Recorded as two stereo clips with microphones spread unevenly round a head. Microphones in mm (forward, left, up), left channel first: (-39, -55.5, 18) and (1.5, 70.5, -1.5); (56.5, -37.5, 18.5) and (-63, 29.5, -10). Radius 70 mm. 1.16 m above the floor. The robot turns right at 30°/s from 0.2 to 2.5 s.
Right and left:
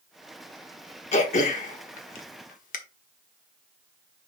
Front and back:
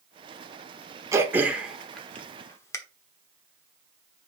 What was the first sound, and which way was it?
Throat clearing, 135° right.